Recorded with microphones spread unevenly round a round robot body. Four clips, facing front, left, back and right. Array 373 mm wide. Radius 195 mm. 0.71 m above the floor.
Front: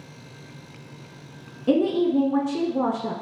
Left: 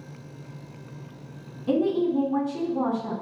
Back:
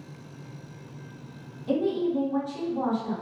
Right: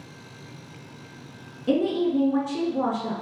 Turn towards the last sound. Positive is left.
turn(degrees=-10)